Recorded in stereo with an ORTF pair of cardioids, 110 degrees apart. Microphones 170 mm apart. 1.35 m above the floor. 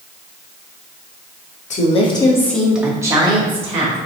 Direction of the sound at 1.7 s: 45° left.